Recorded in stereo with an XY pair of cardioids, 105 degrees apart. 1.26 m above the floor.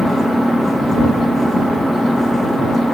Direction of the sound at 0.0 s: 5° right.